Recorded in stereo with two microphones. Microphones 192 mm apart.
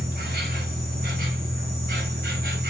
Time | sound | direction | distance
0.0 | an insect | 55° right (ahead or behind) | 1.7 m